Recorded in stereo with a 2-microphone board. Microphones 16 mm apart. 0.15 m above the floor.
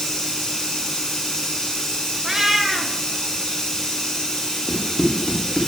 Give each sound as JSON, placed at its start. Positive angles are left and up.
{"t": 0.0, "sound": "running water", "side_deg": 65, "distance_m": 2.5}
{"t": 2.2, "sound": "a cat meowing", "side_deg": -25, "distance_m": 0.8}
{"t": 4.7, "sound": "running footsteps", "side_deg": 45, "distance_m": 2.0}